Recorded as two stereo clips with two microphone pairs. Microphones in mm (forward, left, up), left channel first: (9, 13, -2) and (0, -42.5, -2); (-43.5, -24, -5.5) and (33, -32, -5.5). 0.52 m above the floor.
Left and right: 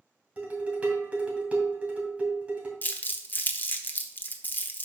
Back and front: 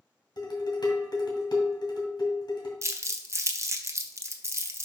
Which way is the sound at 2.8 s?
30° left.